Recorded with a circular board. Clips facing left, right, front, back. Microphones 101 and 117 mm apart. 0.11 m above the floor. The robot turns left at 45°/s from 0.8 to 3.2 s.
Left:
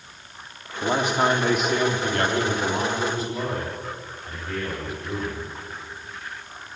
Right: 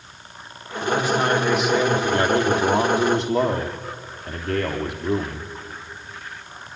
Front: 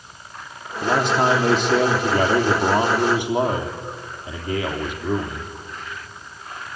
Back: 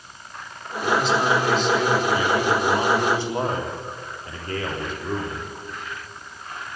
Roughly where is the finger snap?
No finger snap in this recording.